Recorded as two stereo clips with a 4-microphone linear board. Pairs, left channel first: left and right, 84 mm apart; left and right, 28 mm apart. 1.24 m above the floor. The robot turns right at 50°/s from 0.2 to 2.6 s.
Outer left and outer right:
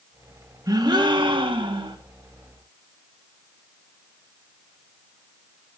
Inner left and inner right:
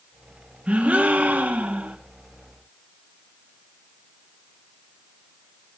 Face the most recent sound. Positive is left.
turn(degrees=-35)